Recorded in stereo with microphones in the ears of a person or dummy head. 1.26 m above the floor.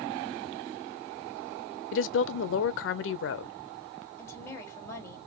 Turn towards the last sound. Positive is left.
turn(degrees=15)  # may be behind; listen again after turning